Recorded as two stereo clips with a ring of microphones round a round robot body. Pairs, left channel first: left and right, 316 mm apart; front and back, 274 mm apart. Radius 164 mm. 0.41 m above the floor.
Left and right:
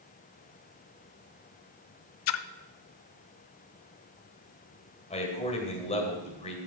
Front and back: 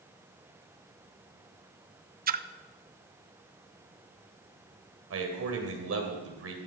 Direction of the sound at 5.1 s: 160° left.